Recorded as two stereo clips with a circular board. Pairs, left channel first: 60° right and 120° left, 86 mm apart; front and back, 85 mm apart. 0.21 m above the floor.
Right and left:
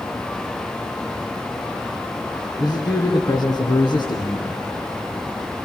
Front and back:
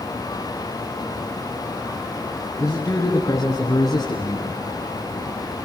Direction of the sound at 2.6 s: 45° right.